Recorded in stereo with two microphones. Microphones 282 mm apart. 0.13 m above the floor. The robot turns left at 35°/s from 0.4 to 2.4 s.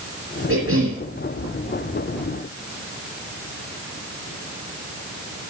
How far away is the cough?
About 2.5 m.